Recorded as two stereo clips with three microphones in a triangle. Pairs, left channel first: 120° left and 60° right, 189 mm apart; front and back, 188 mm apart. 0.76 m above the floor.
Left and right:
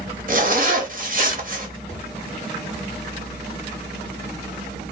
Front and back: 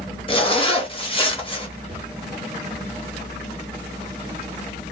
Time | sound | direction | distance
0.3 | a zipper | 50° right | 0.7 m
1.9 | a cupboard door | 10° left | 1.7 m